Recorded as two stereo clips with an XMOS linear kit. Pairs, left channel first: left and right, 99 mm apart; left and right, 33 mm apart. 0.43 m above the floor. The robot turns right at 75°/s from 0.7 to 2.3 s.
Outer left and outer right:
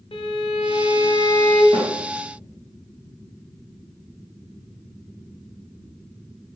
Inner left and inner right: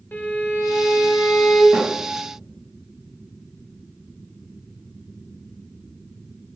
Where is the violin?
95° left, 0.5 m; by 1.6 s 165° left, 0.5 m.